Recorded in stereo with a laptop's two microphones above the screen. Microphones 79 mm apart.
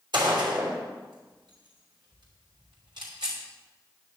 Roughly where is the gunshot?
Right.